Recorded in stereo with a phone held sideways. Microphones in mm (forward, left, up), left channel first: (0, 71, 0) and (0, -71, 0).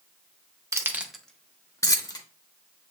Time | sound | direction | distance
0.7 | keys jangling | 20° right (ahead or behind) | 0.6 m